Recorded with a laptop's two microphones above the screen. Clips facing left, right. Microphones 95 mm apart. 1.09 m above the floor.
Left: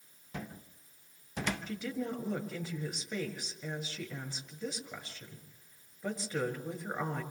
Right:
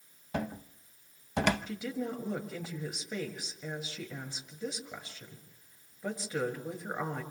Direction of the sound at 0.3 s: 70° right (ahead or behind).